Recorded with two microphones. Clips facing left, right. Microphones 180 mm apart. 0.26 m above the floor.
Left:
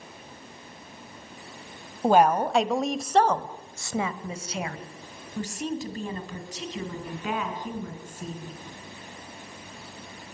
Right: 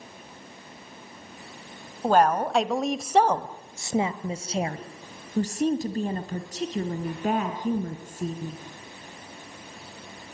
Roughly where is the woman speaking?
Centre.